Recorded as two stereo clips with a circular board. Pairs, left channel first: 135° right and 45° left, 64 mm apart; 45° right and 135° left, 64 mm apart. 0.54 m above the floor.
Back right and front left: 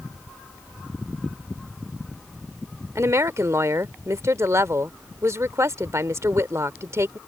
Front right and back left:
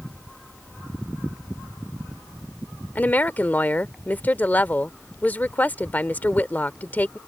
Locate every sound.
3.0 s a woman speaking: 15° left